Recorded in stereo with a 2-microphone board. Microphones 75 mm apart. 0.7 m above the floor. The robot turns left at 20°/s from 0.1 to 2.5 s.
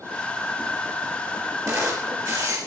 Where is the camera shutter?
45° right (ahead or behind), 5 m; by 2.6 s 60° right (ahead or behind), 5 m.